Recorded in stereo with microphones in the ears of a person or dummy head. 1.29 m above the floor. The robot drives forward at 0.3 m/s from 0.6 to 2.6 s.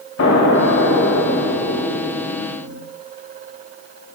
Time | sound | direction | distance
0.2 | an explosion | 85° left | 1.2 m